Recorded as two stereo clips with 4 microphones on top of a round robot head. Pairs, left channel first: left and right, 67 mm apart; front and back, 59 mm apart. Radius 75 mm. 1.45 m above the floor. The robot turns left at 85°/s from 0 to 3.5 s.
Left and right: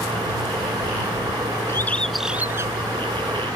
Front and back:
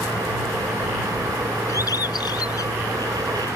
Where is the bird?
40° left; by 2.7 s 50° right.